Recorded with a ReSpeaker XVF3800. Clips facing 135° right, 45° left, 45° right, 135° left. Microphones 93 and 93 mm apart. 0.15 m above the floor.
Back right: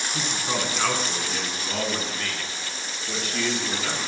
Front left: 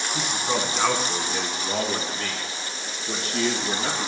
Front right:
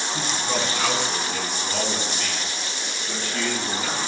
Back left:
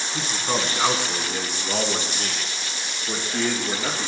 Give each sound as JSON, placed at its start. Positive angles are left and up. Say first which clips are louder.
{"t": 0.1, "sound": "a man speaking", "louder": "front left 2 dB, back left 2 dB", "azimuth_deg": 125, "distance_m": 1.5}